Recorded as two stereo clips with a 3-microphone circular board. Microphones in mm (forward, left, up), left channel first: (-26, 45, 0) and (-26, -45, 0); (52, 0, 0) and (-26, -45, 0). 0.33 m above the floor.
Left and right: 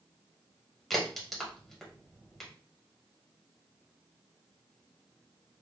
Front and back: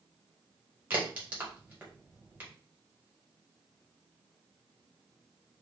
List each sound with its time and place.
0.9 s a crack: 175° left, 1.1 m